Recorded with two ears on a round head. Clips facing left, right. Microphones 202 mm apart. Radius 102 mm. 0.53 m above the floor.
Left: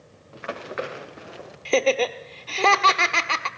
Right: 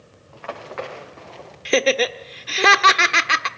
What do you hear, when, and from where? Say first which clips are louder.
0.3 s running footsteps: even; 25° left (ahead or behind), 4.5 m; by 1.6 s 10° left (ahead or behind), 5 m
1.6 s laughter: right 2 dB; 20° right (ahead or behind), 1.2 m